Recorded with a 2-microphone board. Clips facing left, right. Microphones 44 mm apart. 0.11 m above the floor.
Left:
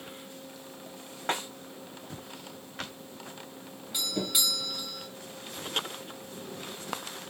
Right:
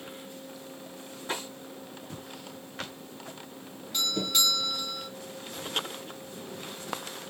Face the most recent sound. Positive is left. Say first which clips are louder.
# right 3 dB
turn(degrees=10)  # may be behind; listen again after turning